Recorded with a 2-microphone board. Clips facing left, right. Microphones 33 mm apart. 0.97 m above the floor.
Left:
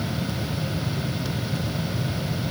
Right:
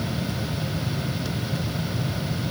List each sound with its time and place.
Only background noise.